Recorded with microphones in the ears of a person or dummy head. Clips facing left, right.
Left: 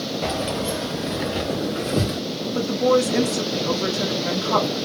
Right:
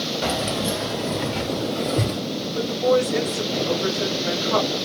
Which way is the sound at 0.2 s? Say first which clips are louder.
Right 1 dB; 10° right (ahead or behind).